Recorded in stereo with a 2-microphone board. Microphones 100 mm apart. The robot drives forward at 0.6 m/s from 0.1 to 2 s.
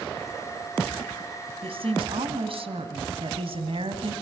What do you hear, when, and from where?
1.6 s a woman speaking: 70° right (ahead or behind), 3 m; by 4.1 s 65° right (ahead or behind), 3 m